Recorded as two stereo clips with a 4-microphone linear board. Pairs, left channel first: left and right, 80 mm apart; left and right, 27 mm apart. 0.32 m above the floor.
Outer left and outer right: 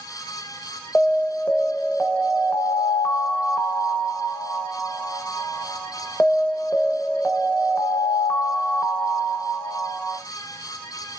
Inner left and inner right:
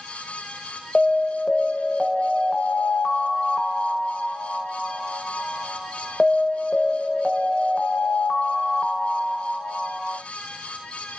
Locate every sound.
0.9 s an alarm: 20° left (ahead or behind), 0.7 m